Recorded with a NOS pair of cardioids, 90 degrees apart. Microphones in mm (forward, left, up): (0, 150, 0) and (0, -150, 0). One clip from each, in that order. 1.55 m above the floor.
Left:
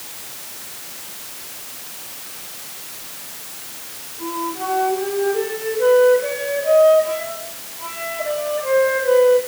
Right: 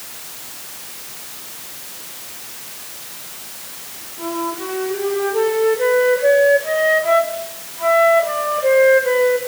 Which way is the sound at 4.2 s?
50° right.